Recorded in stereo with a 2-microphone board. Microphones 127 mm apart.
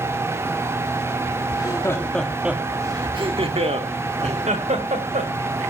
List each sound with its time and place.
1.5 s laughter: 35° left (ahead or behind), 1.7 m; by 5.3 s 75° right (ahead or behind), 3.5 m